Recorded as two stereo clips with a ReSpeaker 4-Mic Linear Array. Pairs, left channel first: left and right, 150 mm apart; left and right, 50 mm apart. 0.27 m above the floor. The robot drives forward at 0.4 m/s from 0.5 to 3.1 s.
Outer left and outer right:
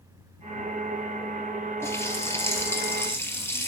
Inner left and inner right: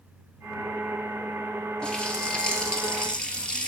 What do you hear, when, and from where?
1.8 s a running tap: 15° left (ahead or behind), 3.5 m